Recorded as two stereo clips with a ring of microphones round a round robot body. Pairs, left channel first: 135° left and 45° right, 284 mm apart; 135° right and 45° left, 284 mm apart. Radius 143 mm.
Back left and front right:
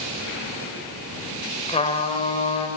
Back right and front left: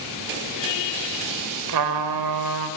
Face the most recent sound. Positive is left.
turn(degrees=65)